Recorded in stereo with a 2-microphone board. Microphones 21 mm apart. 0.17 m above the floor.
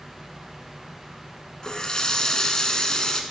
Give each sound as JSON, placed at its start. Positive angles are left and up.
{"t": 1.6, "sound": "a running tap", "side_deg": 35, "distance_m": 1.0}